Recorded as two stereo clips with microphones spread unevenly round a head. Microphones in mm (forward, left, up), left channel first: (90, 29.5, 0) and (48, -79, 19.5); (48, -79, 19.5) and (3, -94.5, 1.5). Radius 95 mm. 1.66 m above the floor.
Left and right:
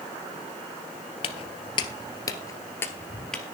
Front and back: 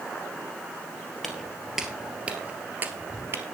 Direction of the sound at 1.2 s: 65° left.